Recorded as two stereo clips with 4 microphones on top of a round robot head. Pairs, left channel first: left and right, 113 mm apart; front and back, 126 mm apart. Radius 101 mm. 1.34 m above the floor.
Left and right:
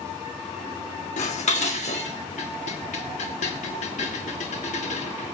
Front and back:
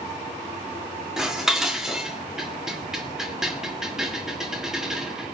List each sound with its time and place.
1.2 s dishes clattering: 95° left, 2 m